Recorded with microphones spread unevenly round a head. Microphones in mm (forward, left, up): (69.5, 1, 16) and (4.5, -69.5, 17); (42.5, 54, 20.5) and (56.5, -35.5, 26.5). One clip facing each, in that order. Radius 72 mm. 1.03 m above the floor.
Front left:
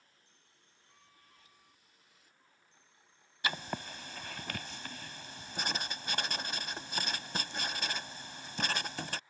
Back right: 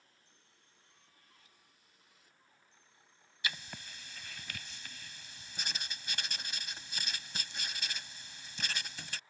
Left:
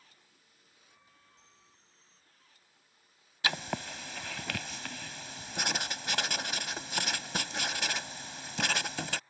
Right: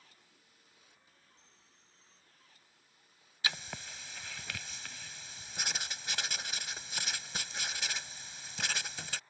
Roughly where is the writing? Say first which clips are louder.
Front left 6 dB, left 7 dB; left.